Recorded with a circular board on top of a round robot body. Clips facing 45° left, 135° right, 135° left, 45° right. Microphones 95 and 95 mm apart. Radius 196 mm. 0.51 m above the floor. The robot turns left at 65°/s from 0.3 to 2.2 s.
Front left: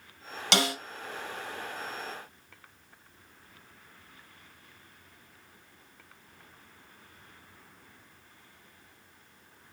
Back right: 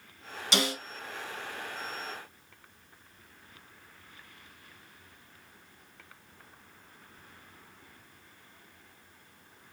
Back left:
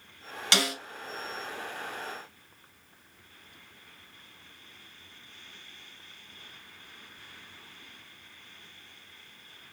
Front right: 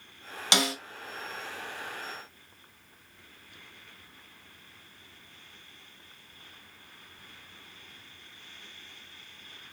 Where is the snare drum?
25° left, 2.5 m; by 0.8 s 10° left, 2.5 m.